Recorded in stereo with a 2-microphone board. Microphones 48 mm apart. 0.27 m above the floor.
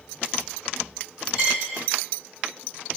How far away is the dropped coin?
About 1.8 m.